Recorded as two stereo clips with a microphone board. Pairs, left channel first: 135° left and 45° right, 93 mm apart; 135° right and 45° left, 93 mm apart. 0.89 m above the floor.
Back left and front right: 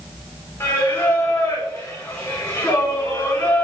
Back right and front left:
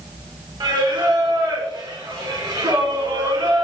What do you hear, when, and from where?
0.6 s singing: 75° left, 1.0 m